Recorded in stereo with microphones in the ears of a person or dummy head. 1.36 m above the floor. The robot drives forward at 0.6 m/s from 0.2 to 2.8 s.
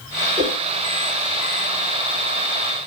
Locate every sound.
0.4 s a whoosh: 35° right (ahead or behind), 5 m; by 0.6 s 40° right (ahead or behind), 5 m